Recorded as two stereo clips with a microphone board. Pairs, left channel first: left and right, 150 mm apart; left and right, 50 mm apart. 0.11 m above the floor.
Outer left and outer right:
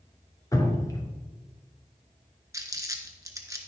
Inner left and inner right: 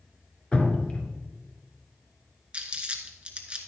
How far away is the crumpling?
About 1.3 m.